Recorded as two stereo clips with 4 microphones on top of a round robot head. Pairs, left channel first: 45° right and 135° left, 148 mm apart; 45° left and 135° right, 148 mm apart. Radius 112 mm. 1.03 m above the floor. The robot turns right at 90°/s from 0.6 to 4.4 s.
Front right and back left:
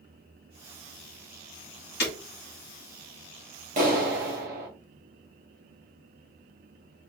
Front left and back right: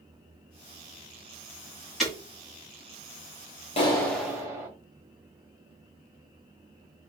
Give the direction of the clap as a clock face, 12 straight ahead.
9 o'clock.